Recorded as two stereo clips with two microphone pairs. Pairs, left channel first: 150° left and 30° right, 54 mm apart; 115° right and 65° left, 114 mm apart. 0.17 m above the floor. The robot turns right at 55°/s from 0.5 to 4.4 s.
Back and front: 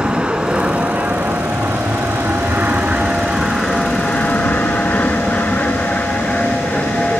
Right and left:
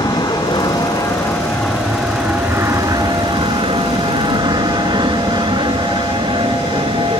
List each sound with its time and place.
0.0 s an aircraft: 95° right; by 7.2 s 90° left